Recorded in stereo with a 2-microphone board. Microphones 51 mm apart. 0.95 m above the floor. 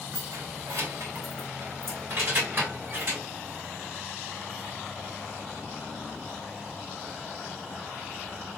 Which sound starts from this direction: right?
Keys jangling, at 0.1 s.